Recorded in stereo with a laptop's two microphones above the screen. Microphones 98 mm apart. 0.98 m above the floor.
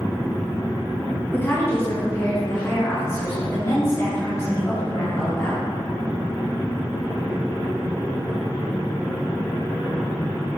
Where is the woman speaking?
20° left (ahead or behind), 1.2 m; by 5.6 s 35° left (ahead or behind), 4.5 m.